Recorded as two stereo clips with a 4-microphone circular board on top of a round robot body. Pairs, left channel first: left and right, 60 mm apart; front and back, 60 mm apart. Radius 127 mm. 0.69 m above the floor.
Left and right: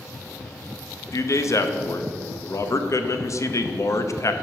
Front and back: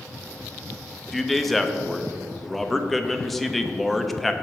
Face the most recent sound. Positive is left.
turn(degrees=90)